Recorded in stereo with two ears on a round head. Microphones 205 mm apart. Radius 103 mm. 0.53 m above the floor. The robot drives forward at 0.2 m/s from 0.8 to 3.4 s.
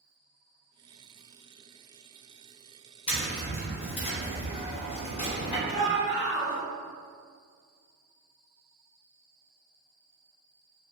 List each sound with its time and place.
3.1 s tapping: 25° left (ahead or behind), 0.8 m
5.7 s a shout: 15° right (ahead or behind), 0.9 m